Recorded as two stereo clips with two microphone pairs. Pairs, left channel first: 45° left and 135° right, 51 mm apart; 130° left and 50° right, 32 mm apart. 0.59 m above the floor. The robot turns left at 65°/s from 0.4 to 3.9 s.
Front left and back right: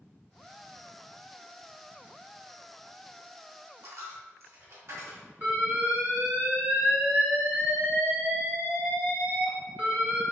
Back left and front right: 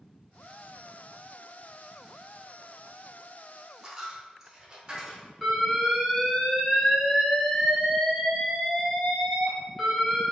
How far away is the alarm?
About 1.1 m.